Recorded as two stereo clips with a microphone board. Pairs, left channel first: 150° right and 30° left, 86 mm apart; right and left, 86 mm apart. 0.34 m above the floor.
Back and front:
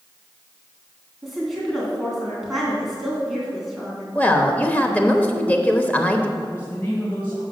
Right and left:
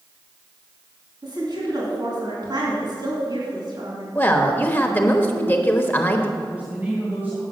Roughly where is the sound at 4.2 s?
Right.